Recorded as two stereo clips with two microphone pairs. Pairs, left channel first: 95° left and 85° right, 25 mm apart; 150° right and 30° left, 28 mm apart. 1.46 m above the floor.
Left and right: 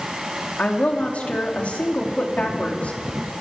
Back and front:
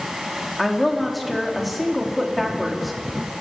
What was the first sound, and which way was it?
A woman speaking, 125° left.